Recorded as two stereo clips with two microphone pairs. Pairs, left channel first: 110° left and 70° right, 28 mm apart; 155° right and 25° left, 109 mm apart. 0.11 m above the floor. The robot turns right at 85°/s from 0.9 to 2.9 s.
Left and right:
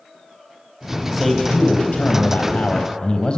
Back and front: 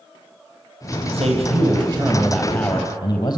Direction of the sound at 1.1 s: Straight ahead.